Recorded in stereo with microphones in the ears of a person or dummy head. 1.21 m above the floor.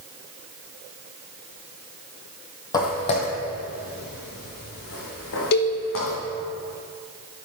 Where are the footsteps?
20° left (ahead or behind), 1.6 m; by 6.2 s 70° left (ahead or behind), 4.5 m.